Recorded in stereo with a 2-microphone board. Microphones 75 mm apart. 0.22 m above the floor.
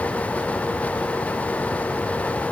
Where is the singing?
No singing in this recording.